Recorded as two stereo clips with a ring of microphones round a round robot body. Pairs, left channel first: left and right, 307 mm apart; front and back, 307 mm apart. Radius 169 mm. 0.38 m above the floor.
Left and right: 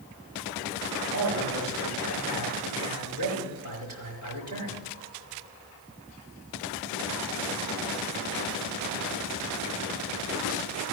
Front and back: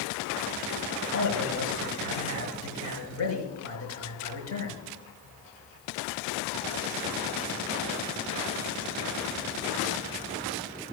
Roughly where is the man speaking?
Ahead right.